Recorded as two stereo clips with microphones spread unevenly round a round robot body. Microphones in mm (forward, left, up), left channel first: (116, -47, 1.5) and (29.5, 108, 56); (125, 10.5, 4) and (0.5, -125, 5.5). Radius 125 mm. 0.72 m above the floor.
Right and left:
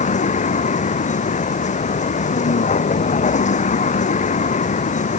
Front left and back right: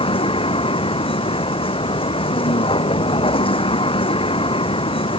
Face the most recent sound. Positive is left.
turn(degrees=-15)